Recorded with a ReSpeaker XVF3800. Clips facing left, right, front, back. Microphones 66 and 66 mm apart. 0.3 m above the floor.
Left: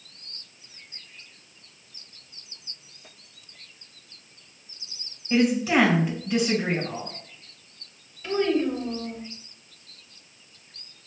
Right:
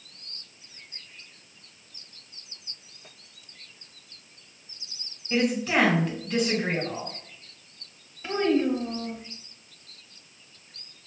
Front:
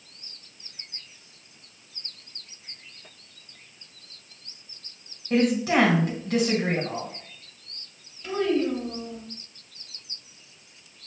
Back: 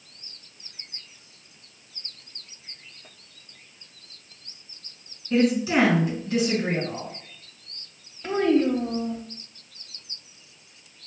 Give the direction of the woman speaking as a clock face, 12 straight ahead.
12 o'clock.